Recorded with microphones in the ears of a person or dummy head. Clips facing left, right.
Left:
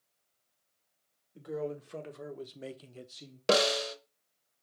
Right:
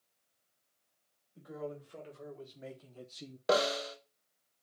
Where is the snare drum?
35° left (ahead or behind), 0.6 m.